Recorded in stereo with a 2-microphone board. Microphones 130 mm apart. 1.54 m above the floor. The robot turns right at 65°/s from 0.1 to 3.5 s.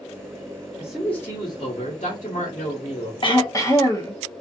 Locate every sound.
0.8 s a man speaking: 10° right, 1.1 m; by 3.1 s 140° left, 1.1 m
3.2 s throat clearing: 45° left (ahead or behind), 0.6 m; by 4.2 s 25° left (ahead or behind), 0.6 m